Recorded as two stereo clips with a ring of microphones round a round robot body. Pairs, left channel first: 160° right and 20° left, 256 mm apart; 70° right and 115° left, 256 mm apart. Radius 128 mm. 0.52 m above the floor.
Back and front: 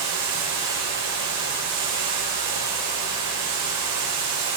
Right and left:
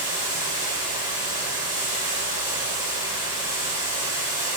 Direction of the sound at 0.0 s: 50° left.